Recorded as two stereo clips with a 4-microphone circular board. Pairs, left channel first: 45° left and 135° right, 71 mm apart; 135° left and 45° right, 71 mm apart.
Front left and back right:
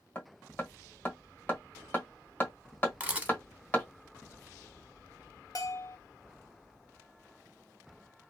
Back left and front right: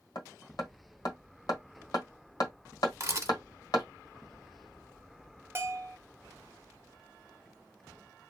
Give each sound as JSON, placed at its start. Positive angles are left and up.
{"t": 0.1, "sound": "hammering", "azimuth_deg": 110, "distance_m": 1.3}
{"t": 3.0, "sound": "a camera shutter", "azimuth_deg": -70, "distance_m": 1.2}
{"t": 5.5, "sound": "a bell", "azimuth_deg": 10, "distance_m": 0.6}